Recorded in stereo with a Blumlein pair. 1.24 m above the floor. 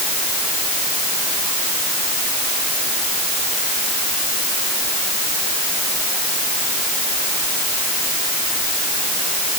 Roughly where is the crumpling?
I don't hear crumpling.